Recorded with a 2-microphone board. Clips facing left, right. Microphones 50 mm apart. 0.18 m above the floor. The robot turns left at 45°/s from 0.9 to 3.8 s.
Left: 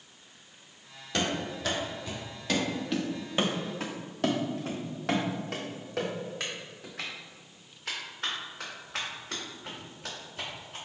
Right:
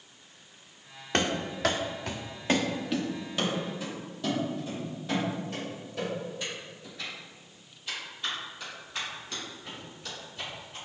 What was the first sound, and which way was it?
Running footsteps, 45° right (ahead or behind).